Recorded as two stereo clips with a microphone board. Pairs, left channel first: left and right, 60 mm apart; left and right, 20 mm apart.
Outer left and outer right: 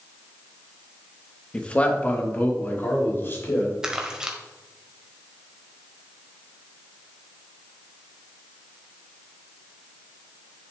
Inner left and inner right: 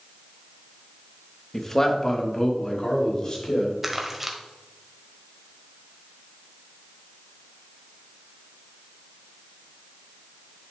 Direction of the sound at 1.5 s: 15° left (ahead or behind).